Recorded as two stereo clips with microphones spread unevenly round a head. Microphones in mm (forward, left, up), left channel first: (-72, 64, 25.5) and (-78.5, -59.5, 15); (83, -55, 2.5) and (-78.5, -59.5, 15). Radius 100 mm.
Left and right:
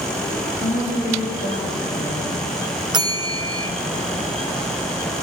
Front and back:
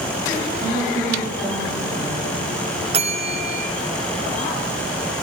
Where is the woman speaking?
100° left, 3 m.